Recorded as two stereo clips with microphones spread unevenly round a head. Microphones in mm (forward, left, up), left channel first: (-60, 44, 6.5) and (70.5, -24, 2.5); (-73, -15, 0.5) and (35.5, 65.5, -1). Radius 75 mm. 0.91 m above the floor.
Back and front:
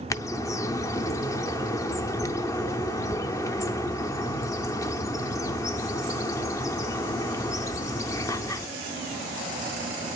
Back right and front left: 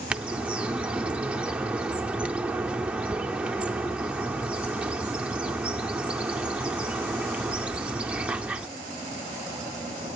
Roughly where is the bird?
Left.